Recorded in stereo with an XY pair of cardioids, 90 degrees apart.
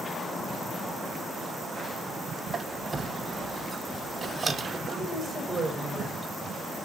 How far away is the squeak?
About 1.0 m.